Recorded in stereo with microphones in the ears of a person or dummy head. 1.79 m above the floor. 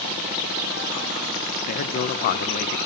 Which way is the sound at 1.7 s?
50° left (ahead or behind).